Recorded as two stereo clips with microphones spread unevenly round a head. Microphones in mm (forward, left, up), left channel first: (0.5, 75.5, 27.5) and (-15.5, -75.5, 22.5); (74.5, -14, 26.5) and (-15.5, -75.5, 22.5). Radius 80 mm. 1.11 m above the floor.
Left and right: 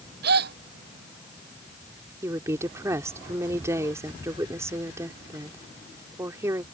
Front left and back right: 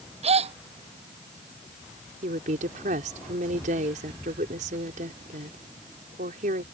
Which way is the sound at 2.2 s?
170° right.